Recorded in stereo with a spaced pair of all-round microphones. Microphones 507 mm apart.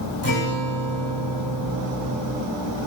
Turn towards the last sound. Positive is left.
turn(degrees=75)  # may be behind; listen again after turning